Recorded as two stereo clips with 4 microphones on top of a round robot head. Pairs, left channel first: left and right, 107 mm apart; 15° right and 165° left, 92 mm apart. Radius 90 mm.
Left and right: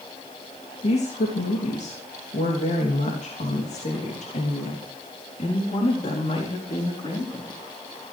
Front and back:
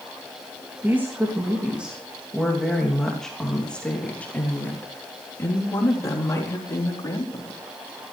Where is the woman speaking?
95° left, 3 m; by 7.6 s 35° left, 5 m.